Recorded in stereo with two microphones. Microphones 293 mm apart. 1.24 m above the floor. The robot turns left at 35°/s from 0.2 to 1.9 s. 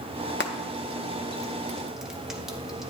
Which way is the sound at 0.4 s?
40° left (ahead or behind).